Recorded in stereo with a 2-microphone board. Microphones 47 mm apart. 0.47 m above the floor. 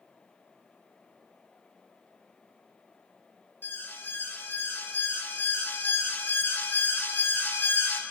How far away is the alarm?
About 3 m.